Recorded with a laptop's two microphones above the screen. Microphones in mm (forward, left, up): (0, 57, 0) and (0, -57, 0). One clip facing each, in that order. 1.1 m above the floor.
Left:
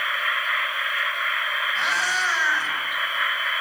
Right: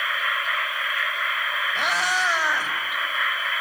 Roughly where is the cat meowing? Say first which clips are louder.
Right 3 dB; right.